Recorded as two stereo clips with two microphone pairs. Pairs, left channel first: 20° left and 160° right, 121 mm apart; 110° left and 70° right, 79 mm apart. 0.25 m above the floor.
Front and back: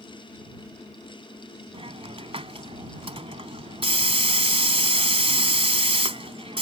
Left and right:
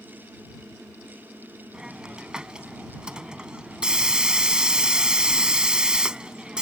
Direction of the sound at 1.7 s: 145° right.